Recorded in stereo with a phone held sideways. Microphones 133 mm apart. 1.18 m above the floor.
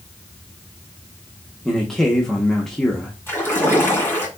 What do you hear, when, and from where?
1.6 s a man speaking: 5° left (ahead or behind), 0.9 m
3.3 s a splash: 20° left (ahead or behind), 2.5 m